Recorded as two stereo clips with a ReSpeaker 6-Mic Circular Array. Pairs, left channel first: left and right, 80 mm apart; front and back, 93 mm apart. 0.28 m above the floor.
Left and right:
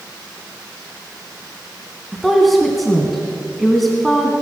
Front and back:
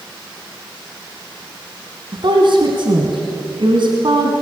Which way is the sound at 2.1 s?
Straight behind.